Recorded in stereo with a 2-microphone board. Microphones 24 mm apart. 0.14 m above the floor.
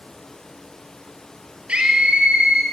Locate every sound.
1.7 s a scream: 60° right (ahead or behind), 2.5 m